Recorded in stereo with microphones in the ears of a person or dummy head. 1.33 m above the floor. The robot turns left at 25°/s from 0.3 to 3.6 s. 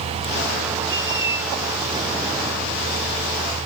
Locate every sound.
0.9 s a squeak: 20° right (ahead or behind), 0.8 m; by 1.4 s 10° right (ahead or behind), 0.8 m